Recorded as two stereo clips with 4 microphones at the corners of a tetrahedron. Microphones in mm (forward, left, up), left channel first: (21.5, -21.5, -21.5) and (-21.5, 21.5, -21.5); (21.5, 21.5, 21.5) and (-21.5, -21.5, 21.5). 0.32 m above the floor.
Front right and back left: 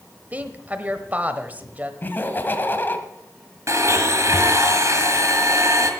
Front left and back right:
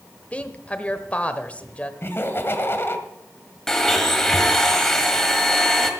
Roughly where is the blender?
Behind left.